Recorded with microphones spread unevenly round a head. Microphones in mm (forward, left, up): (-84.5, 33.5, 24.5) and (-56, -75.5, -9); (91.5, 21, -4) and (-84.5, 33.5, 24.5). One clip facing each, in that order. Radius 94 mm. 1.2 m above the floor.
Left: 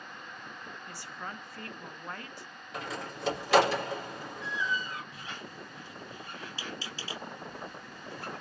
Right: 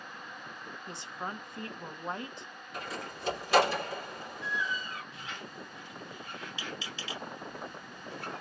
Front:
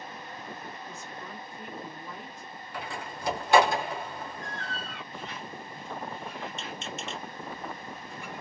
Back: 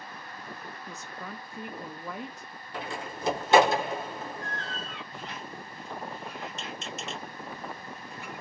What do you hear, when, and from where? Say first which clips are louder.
0.9 s a woman speaking: right 4 dB, even; 145° right, 0.5 m
2.7 s a door slam: left 2 dB, back 2 dB; 110° left, 1.7 m
5.1 s a squeak: even, even; 135° left, 1.5 m